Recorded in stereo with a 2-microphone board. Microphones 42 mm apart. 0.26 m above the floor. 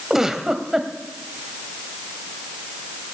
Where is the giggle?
10° right (ahead or behind), 1.2 m.